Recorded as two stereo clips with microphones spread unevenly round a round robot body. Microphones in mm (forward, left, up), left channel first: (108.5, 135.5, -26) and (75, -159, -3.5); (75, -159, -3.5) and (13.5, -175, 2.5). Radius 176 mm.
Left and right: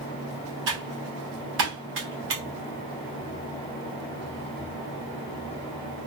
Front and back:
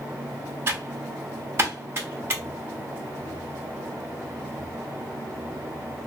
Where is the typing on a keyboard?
130° right, 1.0 m.